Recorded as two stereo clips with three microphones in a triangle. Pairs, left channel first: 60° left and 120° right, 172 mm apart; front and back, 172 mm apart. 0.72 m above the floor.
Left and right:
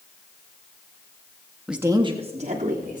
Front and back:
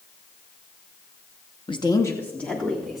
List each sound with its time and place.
1.7 s a woman speaking: 30° right, 0.8 m; by 3.0 s 90° right, 1.9 m